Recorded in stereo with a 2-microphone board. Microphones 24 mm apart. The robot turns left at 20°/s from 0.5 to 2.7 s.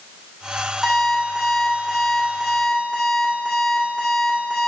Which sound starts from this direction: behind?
An alarm clock, at 0.8 s.